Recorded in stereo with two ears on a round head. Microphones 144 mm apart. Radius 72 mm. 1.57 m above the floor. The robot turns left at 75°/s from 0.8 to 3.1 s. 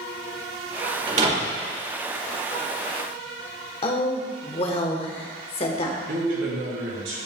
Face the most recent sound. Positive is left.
turn(degrees=-85)